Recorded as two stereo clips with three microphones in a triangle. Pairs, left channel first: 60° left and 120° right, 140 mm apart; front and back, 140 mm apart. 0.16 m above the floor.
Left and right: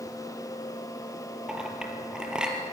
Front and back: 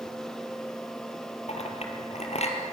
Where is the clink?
35° right, 3 m.